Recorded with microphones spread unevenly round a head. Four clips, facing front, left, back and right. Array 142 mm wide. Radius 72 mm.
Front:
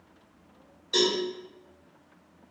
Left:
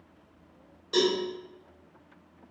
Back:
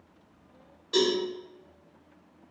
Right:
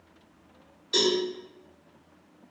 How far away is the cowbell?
About 1.8 m.